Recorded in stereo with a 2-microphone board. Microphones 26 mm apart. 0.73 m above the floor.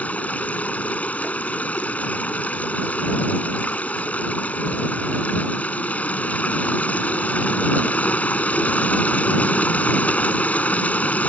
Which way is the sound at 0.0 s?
75° left (ahead or behind).